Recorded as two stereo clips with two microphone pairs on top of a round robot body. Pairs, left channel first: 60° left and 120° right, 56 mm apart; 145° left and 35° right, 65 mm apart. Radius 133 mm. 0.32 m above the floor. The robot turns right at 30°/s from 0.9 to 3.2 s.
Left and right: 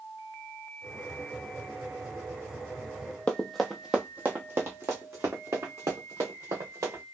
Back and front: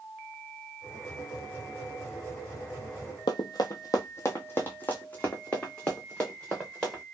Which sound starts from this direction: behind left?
Running footsteps, at 3.3 s.